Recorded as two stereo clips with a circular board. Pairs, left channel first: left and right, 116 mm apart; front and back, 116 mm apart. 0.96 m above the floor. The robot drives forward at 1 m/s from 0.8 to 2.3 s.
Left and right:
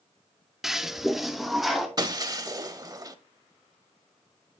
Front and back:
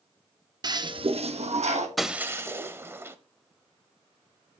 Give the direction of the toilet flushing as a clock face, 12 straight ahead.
6 o'clock.